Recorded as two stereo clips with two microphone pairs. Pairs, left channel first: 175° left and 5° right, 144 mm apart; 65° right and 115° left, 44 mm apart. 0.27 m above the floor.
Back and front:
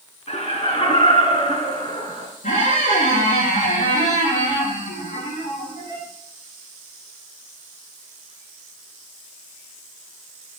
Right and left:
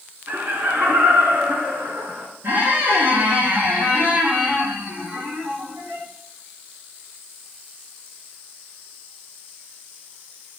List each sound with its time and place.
0.3 s laughter: 140° left, 3 m; by 2.3 s 125° left, 4 m
2.4 s a squeak: 145° left, 5 m